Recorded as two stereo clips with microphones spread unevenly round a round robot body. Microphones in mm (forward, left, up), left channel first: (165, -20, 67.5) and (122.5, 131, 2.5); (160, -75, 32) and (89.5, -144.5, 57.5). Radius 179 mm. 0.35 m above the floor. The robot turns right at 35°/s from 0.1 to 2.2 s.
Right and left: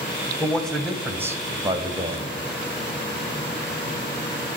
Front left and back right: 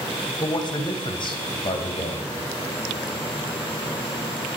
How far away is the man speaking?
About 2.0 m.